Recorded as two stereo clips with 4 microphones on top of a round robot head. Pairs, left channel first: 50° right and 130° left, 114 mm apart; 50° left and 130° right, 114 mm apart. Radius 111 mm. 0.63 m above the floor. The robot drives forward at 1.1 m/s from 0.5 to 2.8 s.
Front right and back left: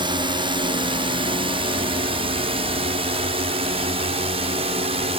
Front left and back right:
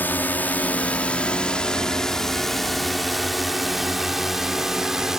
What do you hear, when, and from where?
0.0 s a drone: 120° left; by 5.2 s 145° left